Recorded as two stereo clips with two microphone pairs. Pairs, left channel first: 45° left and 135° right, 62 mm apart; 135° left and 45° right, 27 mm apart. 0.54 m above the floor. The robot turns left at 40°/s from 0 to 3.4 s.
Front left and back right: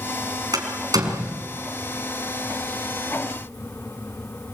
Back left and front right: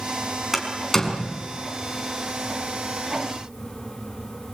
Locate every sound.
0.5 s a door slam: 130° right, 4.5 m; by 1.4 s 165° right, 4.5 m